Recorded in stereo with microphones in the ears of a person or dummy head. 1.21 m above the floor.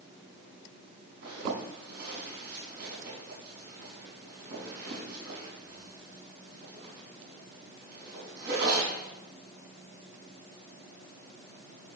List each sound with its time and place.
1.2 s a zipper: 65° right (ahead or behind), 5 m